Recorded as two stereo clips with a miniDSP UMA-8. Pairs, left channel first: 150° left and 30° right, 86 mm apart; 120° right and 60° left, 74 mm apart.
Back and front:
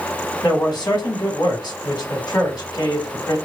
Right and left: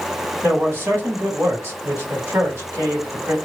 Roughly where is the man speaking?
Behind left.